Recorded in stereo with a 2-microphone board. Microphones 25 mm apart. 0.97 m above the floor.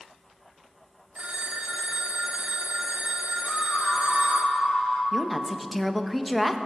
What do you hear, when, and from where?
1.1 s a phone ringing: 65° right (ahead or behind), 1.7 m
3.4 s a scream: 65° left (ahead or behind), 6 m
5.1 s a woman speaking: centre (ahead or behind), 1.1 m